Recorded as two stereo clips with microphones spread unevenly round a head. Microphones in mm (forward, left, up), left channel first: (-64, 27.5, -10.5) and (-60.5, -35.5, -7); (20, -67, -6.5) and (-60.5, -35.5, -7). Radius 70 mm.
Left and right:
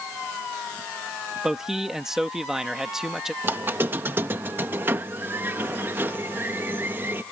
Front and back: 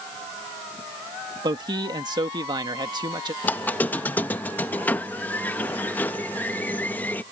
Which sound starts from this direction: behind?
A man speaking, at 1.4 s.